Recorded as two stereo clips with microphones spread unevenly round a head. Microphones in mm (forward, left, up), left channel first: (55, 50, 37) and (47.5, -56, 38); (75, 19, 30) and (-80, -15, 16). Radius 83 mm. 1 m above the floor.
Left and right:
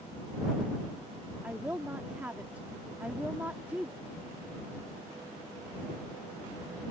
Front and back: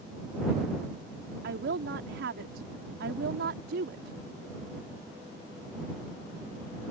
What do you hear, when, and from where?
1.4 s a woman speaking: 175° right